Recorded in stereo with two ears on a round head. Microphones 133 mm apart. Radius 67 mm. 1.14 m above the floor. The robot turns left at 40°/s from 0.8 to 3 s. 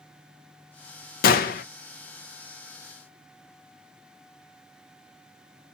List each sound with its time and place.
1.2 s a gunshot: 65° left (ahead or behind), 0.7 m; by 1.6 s 60° left (ahead or behind), 0.7 m